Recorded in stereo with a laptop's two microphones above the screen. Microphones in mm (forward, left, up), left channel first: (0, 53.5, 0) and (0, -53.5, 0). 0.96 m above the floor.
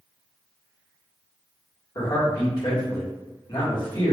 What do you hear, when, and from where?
1.9 s a man speaking: 45° left (ahead or behind), 1.3 m